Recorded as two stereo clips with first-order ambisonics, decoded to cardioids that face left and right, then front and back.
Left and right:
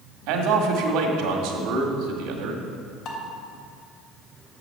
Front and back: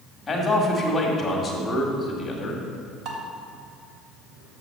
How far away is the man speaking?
About 1.9 m.